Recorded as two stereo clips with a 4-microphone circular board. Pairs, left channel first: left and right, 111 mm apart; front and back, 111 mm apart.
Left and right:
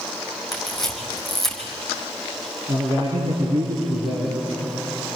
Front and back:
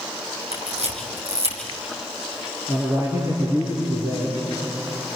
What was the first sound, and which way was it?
A camera shutter, 175° left.